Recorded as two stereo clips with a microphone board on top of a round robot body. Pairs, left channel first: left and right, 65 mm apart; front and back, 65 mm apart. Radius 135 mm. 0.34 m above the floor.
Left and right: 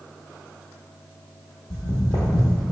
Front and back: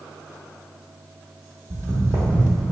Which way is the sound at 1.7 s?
120° left.